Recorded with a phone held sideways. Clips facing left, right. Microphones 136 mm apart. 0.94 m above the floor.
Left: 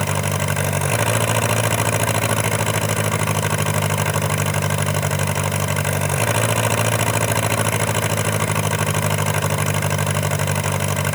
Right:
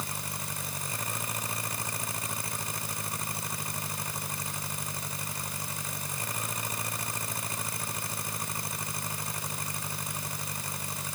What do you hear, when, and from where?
0.0 s an engine running: 75° left (ahead or behind)